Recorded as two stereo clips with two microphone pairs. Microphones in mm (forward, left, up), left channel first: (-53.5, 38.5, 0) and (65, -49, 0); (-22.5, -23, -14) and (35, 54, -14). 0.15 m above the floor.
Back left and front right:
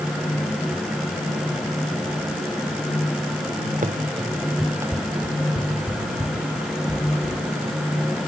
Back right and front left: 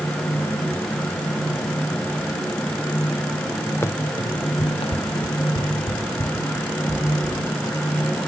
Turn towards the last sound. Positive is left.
turn(degrees=-140)